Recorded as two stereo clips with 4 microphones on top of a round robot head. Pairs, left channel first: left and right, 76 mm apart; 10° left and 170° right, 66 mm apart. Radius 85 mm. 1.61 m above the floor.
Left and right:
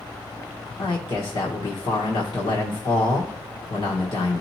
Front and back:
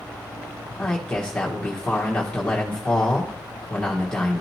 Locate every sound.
0.8 s a man speaking: 85° left, 1.6 m